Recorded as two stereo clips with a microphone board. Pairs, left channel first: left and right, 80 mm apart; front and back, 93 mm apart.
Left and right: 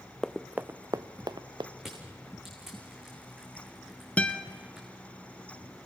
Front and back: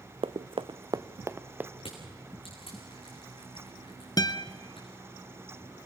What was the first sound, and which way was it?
Running footsteps, 170° left.